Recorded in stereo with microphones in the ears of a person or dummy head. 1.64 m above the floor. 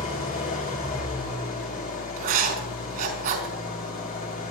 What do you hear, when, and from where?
0.0 s an engine running: 45° left (ahead or behind), 4 m
2.2 s writing: 50° right (ahead or behind), 5 m